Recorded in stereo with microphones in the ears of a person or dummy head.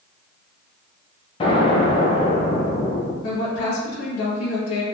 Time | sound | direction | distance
1.4 | an explosion | 30° left (ahead or behind) | 0.6 m
3.2 | a woman speaking | 85° left | 1.3 m